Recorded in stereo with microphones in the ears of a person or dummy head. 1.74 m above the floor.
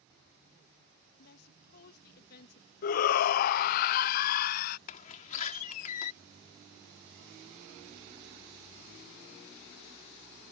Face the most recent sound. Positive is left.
turn(degrees=40)  # may be behind; listen again after turning